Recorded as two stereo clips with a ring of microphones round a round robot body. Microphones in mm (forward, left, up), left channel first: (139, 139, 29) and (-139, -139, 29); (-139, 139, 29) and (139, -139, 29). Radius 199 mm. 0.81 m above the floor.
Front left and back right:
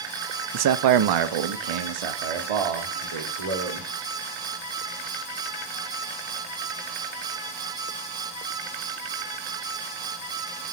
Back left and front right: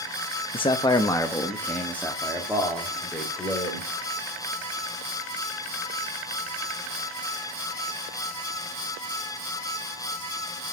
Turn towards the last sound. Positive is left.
turn(degrees=-135)